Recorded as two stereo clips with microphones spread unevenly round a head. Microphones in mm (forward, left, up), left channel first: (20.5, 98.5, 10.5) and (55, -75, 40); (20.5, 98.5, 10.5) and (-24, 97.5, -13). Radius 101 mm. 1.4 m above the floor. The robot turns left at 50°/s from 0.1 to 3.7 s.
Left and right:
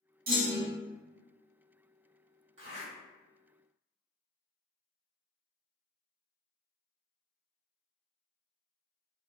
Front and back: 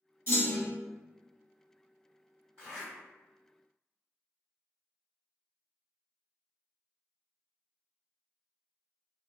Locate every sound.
0.3 s a clunk: 40° right, 1.1 m; by 0.7 s 65° right, 1.1 m
2.6 s a zipper: 115° right, 1.7 m; by 2.9 s 130° right, 1.7 m